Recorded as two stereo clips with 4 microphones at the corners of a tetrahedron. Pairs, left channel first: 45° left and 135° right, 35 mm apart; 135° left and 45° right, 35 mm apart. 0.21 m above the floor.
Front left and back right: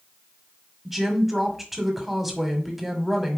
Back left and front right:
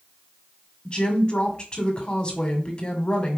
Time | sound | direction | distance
0.8 | a woman speaking | 140° left | 1.7 m